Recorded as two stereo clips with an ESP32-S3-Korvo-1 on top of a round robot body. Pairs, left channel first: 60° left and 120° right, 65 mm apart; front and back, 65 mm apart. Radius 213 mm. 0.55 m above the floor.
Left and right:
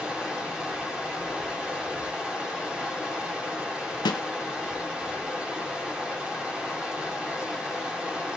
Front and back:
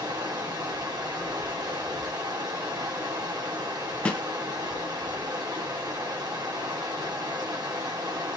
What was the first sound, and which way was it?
Running water, 165° left.